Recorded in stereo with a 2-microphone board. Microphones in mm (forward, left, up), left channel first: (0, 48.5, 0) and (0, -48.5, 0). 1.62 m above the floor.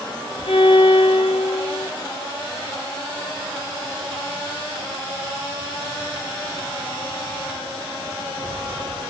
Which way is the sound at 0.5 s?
65° left (ahead or behind).